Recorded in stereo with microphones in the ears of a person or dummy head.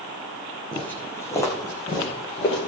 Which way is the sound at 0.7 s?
5° left (ahead or behind).